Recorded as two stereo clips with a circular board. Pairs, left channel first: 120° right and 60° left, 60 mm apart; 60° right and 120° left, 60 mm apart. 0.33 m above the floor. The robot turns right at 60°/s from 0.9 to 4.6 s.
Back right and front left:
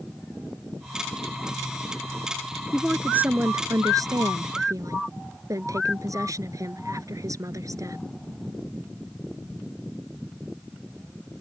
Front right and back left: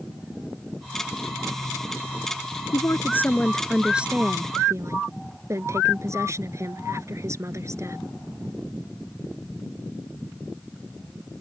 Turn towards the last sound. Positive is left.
turn(degrees=85)